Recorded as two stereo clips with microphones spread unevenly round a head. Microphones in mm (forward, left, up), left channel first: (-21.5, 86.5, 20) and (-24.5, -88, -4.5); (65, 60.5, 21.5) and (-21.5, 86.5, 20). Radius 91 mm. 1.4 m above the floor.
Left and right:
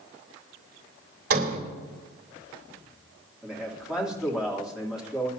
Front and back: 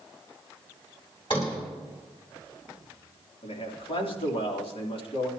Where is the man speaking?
5° right, 3 m.